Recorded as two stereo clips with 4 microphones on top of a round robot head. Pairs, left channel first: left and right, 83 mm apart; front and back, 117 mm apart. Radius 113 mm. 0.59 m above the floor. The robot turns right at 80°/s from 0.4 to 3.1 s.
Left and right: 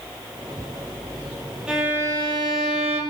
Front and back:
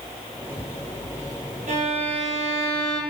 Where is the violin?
170° right, 2.5 m; by 3.0 s 65° right, 2.5 m.